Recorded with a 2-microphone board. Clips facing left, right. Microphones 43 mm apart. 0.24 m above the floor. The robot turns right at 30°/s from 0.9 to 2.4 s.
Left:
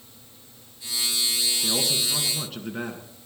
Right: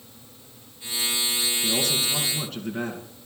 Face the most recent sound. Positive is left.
turn(degrees=5)  # may be behind; listen again after turning